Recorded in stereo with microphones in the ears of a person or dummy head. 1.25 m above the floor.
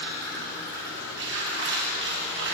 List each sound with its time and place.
0.0 s running water: 65° right (ahead or behind), 1.9 m